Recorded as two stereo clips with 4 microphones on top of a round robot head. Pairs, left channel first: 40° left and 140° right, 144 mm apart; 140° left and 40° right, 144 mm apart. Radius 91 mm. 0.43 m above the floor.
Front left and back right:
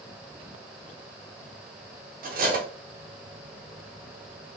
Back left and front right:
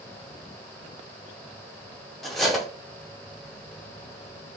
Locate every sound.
2.2 s cutlery clinking: 130° right, 1.4 m